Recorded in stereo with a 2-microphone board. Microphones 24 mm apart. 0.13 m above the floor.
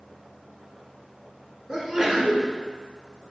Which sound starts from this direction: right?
A sneeze, at 1.7 s.